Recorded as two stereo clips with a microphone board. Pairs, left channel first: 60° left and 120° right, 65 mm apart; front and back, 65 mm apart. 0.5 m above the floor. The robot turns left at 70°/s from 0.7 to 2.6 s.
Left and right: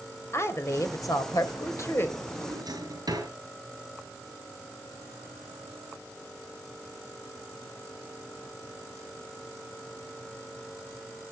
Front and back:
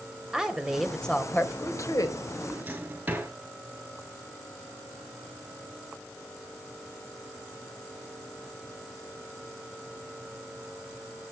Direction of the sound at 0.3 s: 100° left.